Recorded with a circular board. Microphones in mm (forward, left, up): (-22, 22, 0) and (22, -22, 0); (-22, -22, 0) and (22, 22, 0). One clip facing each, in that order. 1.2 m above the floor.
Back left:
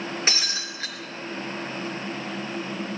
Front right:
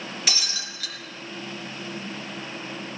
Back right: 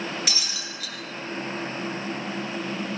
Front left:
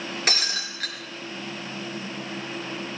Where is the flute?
I don't hear a flute.